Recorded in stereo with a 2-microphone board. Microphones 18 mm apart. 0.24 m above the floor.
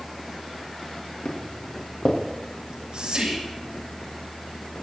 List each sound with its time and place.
1.2 s footsteps: 75° left (ahead or behind), 4 m
2.6 s whispering: 55° right (ahead or behind), 5 m